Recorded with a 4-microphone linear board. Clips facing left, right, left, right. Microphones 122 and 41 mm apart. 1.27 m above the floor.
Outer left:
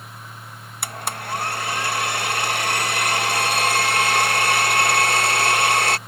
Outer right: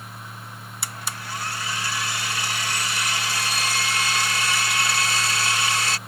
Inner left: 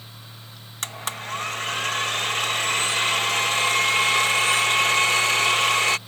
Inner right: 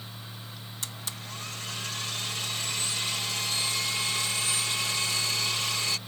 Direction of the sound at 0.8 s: 55° left (ahead or behind).